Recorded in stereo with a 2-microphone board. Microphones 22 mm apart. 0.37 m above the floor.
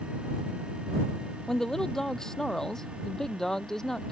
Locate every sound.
1.5 s a woman speaking: 20° left (ahead or behind); by 4.1 s 25° left (ahead or behind)